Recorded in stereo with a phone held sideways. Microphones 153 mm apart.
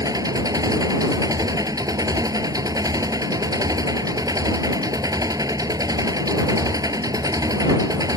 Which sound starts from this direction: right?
An engine running, at 0.0 s.